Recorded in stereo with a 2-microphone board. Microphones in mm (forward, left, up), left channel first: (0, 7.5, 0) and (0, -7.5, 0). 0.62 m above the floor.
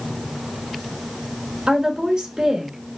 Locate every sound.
1.7 s a woman speaking: 50° right (ahead or behind), 2.5 m